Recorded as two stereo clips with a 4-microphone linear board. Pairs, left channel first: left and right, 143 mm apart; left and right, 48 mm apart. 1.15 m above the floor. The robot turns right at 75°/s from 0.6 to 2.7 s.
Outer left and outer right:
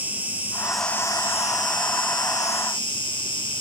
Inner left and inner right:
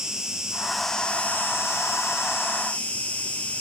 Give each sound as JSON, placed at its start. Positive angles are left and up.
{"t": 0.0, "sound": "an insect", "azimuth_deg": -15, "distance_m": 1.5}